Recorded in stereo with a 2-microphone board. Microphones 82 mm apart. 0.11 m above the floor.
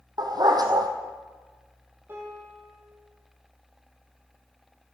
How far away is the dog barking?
About 1.2 m.